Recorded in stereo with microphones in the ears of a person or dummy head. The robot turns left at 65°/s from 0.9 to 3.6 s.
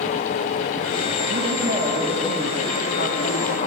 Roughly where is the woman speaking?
Behind right.